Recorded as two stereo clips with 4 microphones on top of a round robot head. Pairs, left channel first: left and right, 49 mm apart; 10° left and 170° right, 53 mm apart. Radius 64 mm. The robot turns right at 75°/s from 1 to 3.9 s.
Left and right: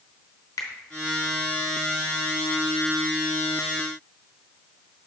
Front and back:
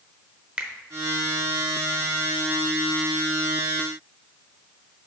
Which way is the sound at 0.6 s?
120° left.